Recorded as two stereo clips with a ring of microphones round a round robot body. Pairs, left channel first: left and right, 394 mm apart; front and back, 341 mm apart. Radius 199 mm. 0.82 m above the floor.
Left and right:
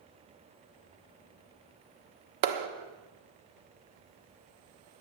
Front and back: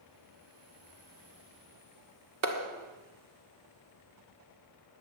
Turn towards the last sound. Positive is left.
turn(degrees=-130)